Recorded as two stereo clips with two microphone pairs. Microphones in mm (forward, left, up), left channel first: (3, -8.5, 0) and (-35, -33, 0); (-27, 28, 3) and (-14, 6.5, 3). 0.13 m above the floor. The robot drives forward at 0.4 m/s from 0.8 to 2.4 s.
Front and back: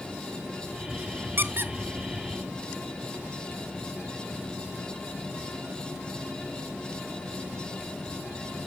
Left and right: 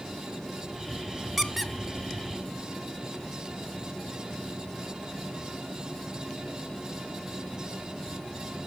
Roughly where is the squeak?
Behind right.